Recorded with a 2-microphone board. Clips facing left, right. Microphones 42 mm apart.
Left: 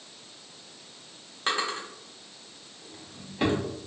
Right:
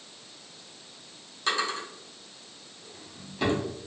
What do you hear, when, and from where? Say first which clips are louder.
1.5 s a drawer: even; 30° left (ahead or behind), 1.0 m